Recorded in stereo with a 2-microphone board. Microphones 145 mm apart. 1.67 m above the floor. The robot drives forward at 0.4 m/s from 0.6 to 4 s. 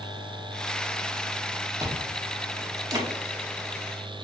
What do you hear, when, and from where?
1.8 s chewing: 20° right (ahead or behind), 0.7 m; by 3.1 s 25° right (ahead or behind), 0.6 m